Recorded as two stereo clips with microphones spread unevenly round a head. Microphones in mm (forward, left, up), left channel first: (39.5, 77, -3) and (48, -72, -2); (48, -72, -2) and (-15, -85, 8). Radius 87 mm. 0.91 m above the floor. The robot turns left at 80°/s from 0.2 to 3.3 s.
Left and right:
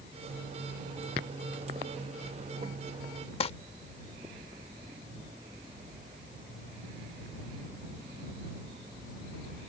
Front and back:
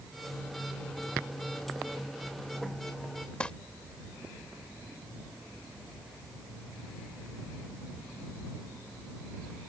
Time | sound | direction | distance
3.4 | crumpling | 90° left | ?